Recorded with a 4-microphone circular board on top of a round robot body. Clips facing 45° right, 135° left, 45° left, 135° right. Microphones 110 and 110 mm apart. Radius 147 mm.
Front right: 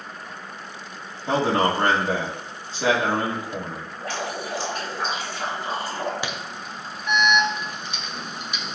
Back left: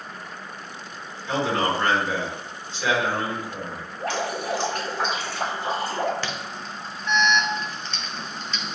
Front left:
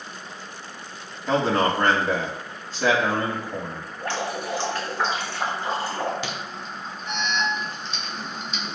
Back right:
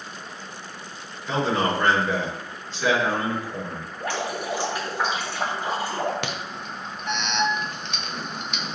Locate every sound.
1.3 s a man speaking: straight ahead, 4 m
4.0 s dripping: 150° left, 3.5 m
6.2 s an alarm: 120° right, 1.4 m